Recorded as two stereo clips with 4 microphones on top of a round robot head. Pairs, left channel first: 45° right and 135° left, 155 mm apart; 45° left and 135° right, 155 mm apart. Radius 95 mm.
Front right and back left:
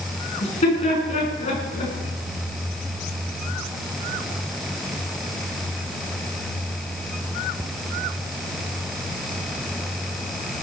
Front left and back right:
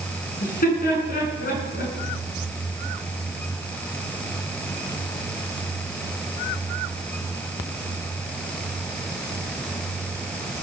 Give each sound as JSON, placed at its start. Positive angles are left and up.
{"t": 0.4, "sound": "laughter", "azimuth_deg": 5, "distance_m": 7.0}